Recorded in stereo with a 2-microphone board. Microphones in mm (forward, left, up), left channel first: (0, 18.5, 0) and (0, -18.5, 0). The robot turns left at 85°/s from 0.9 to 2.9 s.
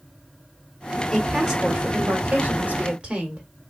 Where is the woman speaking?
15° left, 1.1 m; by 3.5 s 140° right, 1.1 m.